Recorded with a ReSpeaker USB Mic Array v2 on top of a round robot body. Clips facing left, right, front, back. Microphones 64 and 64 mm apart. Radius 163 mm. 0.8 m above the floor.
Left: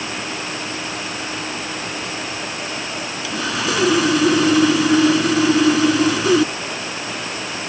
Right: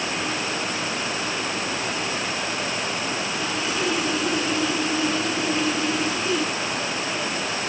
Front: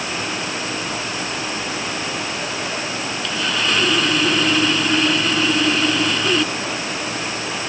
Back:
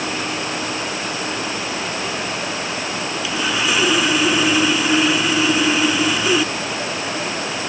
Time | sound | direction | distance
3.2 | sawing | 95° left | ?